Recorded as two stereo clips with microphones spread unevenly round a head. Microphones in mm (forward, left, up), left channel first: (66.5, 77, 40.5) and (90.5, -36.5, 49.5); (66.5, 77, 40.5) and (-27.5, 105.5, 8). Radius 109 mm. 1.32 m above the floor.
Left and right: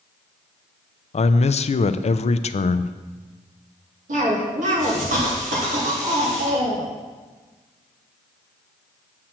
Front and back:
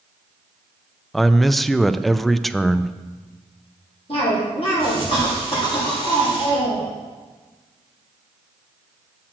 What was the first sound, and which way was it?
A man speaking, 70° left.